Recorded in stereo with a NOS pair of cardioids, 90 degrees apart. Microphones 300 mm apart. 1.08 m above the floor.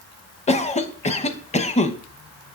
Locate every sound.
0.5 s a cough: 25° left, 0.8 m